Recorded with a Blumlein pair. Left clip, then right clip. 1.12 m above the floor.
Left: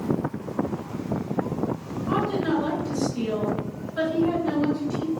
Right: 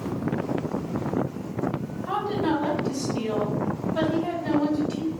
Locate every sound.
2.1 s a woman speaking: 45° right, 1.3 m